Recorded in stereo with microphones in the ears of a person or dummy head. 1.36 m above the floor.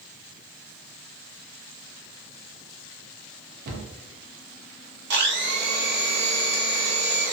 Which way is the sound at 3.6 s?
50° right (ahead or behind).